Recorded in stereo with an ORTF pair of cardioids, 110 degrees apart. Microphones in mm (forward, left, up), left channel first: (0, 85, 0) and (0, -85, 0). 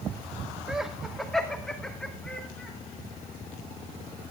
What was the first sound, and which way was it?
Laughter, 5° right.